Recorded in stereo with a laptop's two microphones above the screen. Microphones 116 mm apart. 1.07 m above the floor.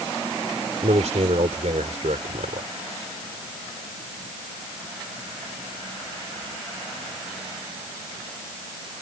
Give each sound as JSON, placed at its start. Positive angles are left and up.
{"t": 0.8, "sound": "a man speaking", "side_deg": -80}